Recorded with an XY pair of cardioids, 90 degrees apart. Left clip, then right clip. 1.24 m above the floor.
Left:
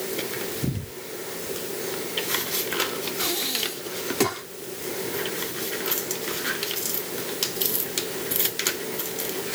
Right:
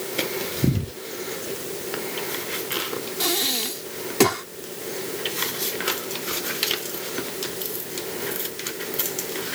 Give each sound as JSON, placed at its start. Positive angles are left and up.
{"t": 3.2, "sound": "breathing", "azimuth_deg": -40}